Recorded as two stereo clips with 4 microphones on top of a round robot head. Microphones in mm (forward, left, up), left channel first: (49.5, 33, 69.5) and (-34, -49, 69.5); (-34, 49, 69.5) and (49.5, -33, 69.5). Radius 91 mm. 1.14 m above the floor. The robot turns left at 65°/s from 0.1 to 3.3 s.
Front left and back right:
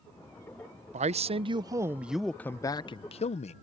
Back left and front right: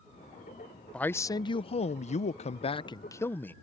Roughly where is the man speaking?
Behind right.